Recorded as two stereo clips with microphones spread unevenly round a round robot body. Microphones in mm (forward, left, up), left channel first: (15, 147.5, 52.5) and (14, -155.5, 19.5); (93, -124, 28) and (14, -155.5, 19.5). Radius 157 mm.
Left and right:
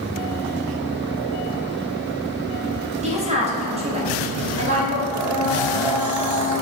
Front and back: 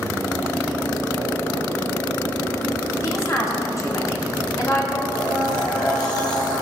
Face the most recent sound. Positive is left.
turn(degrees=-10)